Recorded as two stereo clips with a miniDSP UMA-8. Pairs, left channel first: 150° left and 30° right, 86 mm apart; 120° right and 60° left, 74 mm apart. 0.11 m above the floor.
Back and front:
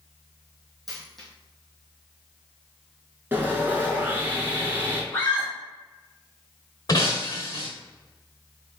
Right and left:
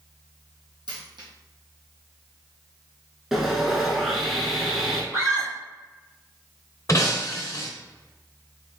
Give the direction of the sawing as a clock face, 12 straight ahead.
1 o'clock.